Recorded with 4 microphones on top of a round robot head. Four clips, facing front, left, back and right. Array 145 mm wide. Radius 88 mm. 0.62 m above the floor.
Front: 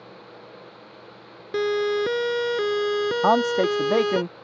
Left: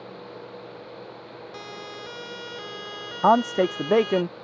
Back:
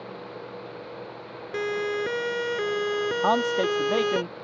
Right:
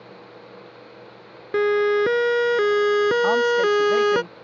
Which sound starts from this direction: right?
A siren, at 1.5 s.